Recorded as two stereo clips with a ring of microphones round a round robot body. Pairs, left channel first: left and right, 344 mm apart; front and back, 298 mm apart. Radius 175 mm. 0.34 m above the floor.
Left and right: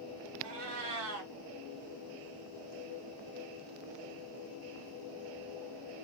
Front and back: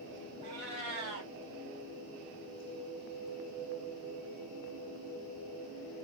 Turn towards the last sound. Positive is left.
turn(degrees=-135)